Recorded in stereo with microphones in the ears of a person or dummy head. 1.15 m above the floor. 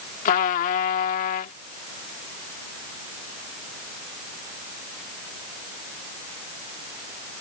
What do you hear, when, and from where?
0.2 s a trumpet: 50° left (ahead or behind)